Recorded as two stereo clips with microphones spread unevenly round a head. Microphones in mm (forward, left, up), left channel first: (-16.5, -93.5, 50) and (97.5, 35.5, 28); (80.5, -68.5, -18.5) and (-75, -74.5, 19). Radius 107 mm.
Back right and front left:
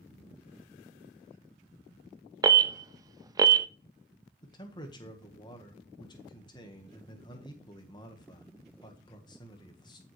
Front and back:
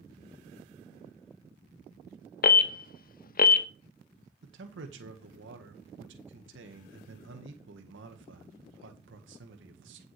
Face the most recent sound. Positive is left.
turn(degrees=160)